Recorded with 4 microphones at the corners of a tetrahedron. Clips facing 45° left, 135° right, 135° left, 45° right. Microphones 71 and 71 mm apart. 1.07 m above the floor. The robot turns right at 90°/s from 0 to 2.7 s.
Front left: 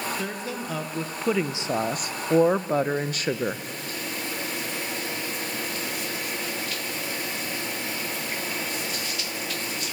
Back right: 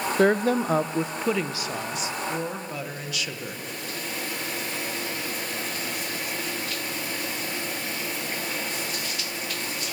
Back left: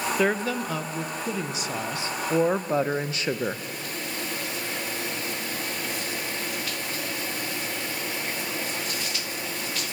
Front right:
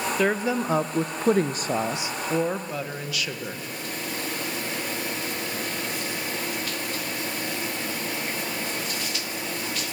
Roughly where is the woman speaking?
Behind right.